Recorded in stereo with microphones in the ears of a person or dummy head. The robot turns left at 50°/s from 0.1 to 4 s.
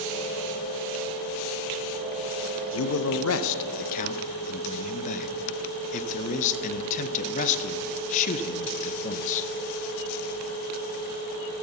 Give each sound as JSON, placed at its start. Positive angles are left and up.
{"t": 2.7, "sound": "a man speaking", "azimuth_deg": 110, "distance_m": 0.5}